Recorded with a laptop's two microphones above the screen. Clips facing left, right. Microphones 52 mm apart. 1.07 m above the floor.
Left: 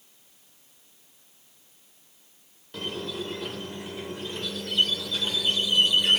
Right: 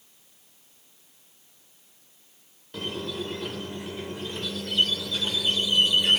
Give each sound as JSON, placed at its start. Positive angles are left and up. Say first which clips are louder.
{"t": 2.7, "sound": "a squeak", "louder": "right 1 dB", "side_deg": 0, "distance_m": 1.1}